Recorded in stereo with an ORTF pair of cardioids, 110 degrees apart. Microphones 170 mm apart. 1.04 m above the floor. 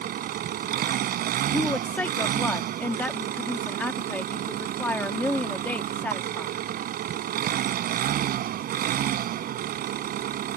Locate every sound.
0.0 s an engine running: 65° right
1.5 s a woman speaking: 10° left